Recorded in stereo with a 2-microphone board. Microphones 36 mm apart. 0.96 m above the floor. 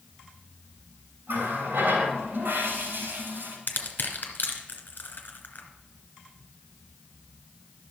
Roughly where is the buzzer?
I don't hear a buzzer.